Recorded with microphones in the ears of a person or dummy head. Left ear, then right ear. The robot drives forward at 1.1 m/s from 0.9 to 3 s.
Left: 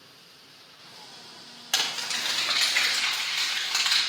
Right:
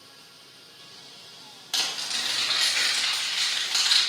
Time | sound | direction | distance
1.7 | crumpling | 30° left (ahead or behind) | 1.2 m